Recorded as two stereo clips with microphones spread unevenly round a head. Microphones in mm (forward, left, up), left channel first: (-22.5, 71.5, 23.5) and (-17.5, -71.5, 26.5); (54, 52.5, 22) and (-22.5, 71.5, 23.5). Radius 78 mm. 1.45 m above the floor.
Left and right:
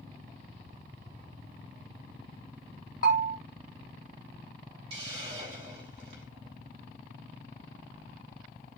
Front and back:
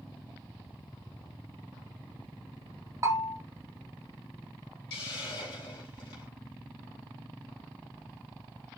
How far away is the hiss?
About 3 m.